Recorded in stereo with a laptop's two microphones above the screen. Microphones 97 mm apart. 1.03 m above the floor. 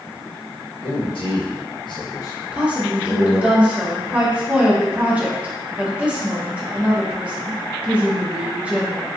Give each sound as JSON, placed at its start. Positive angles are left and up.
{"t": 0.8, "sound": "a man speaking", "side_deg": 70, "distance_m": 1.4}
{"t": 2.5, "sound": "a woman speaking", "side_deg": -15, "distance_m": 0.6}